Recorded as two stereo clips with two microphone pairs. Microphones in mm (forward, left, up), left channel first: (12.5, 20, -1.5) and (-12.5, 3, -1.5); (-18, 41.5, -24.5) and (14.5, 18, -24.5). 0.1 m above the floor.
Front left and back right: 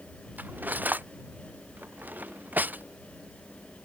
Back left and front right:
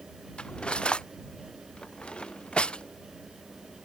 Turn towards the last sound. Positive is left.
turn(degrees=-150)